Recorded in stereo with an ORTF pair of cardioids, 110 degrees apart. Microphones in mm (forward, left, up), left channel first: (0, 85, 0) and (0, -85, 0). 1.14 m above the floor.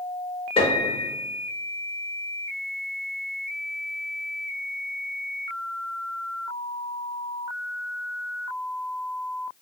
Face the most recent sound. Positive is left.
turn(degrees=35)